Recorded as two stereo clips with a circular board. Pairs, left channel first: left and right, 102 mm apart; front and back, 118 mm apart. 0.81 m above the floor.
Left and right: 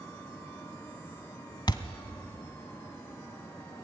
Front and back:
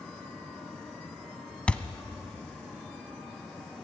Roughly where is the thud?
Left.